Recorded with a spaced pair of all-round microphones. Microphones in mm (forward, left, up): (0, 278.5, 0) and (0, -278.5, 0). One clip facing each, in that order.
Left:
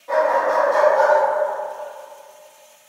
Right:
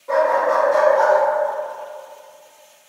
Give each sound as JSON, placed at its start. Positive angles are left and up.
{"t": 0.1, "sound": "a dog barking", "side_deg": 20, "distance_m": 0.8}